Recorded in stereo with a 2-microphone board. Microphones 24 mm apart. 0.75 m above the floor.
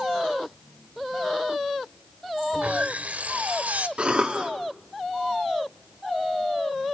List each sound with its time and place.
2.5 s sawing: 80° right, 1.2 m
4.0 s a cough: 50° right (ahead or behind), 1.4 m